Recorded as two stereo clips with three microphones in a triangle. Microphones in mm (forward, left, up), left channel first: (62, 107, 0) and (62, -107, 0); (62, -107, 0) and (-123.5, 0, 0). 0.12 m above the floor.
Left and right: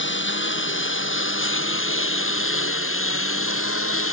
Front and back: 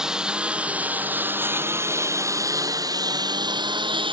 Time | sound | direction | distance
0.0 | a lawn mower | 65° left | ?